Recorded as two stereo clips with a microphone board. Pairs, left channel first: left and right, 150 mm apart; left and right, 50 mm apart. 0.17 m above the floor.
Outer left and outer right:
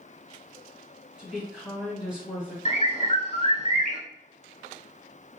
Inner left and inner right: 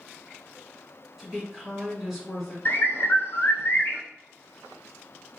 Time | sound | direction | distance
1.2 | a woman speaking | 5° right (ahead or behind) | 1.6 m
2.6 | a bird | 50° left (ahead or behind) | 0.5 m